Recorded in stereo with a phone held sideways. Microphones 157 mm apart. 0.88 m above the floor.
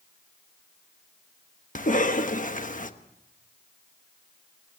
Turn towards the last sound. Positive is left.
turn(degrees=55)  # may be behind; listen again after turning